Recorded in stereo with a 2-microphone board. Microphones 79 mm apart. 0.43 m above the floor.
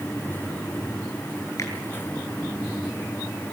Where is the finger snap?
40° left (ahead or behind), 7 m.